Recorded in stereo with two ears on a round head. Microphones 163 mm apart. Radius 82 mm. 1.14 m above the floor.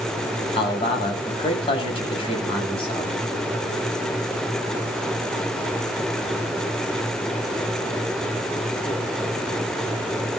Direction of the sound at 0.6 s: 30° left (ahead or behind).